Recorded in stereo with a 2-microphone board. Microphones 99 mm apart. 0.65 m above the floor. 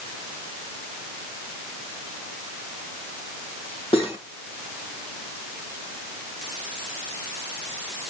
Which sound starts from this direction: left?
Cutlery clinking, at 3.9 s.